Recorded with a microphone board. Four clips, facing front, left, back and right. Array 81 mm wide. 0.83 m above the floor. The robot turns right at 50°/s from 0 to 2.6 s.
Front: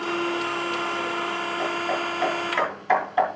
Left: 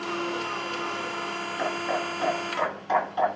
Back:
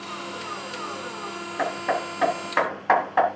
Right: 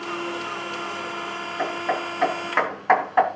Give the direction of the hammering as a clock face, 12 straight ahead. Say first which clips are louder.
Right 3 dB, back 3 dB; 6 o'clock.